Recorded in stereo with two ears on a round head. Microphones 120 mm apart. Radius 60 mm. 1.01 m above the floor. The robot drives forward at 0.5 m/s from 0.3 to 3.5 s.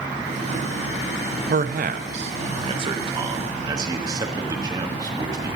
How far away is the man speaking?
About 0.6 m.